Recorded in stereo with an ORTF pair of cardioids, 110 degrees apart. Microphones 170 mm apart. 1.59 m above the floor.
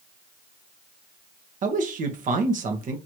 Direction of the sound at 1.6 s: 50° right.